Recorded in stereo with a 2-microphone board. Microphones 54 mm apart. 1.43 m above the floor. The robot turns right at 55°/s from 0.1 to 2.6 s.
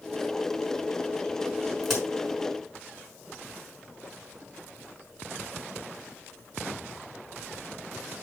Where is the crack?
Centre (ahead or behind), 5.5 m; by 2.0 s 10° right (ahead or behind), 5.5 m.